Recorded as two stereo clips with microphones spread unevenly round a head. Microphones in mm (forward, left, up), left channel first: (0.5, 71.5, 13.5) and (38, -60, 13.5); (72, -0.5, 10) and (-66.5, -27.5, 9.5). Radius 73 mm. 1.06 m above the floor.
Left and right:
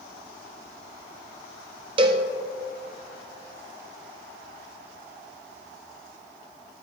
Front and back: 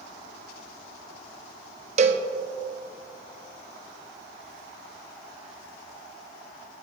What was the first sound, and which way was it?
A cowbell, 130° right.